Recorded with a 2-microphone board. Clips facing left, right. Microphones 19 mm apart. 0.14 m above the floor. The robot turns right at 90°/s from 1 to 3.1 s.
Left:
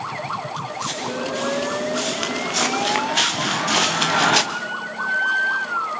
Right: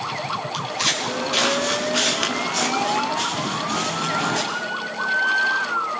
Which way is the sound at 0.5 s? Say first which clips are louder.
Right 4 dB; 65° right (ahead or behind).